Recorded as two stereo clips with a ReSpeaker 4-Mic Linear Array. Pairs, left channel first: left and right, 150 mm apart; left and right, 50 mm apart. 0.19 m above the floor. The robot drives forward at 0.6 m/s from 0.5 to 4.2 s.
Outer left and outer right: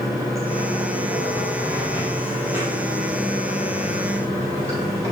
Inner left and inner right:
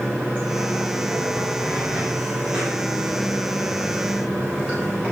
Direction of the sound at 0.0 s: 20° right (ahead or behind).